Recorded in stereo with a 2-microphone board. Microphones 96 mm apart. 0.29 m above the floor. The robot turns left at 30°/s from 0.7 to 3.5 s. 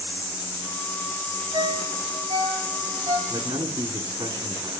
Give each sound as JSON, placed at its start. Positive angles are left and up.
{"t": 1.5, "sound": "a ringtone", "side_deg": -65, "distance_m": 3.5}
{"t": 3.3, "sound": "a man speaking", "side_deg": -45, "distance_m": 3.0}